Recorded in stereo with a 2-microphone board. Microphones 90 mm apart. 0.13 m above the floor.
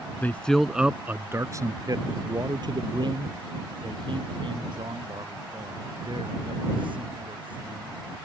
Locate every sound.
0.2 s a man speaking: 20° left (ahead or behind); by 8.0 s 65° right (ahead or behind)